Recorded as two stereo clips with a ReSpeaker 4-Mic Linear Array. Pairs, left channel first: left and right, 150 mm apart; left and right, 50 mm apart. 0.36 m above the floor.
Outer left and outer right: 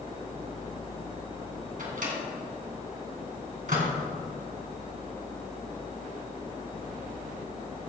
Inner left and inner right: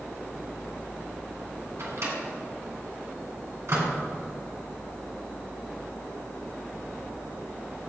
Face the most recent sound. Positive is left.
turn(degrees=-65)  # may be behind; listen again after turning